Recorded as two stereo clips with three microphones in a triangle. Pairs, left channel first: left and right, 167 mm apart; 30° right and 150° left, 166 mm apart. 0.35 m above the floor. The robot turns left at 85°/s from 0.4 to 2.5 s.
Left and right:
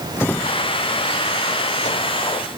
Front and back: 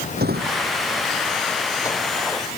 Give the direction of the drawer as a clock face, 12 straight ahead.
6 o'clock.